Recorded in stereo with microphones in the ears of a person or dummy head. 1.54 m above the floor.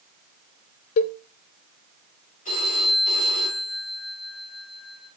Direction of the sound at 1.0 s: 45° left (ahead or behind).